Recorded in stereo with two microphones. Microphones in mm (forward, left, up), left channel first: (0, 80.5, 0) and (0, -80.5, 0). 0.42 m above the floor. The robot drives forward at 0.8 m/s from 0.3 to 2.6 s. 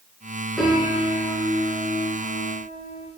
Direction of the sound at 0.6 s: Centre (ahead or behind).